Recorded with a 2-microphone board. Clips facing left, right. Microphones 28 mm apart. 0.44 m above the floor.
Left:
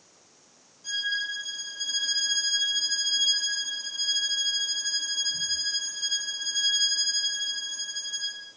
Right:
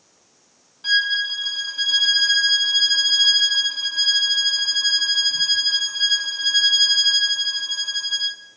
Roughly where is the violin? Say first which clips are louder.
Right 10 dB; right.